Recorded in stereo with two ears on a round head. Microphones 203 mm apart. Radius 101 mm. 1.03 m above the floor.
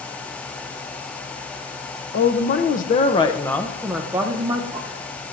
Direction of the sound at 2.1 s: 50° left (ahead or behind).